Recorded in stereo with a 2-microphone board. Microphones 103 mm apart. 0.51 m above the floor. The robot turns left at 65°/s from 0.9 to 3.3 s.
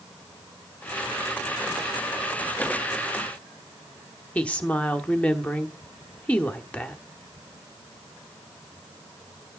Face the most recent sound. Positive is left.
turn(degrees=15)  # may be behind; listen again after turning